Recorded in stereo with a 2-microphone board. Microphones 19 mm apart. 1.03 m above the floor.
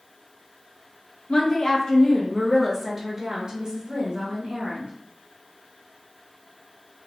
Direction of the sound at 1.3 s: 45° left (ahead or behind).